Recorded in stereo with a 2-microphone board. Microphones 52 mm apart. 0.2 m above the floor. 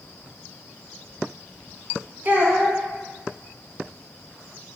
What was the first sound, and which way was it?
A child speaking, 40° right (ahead or behind).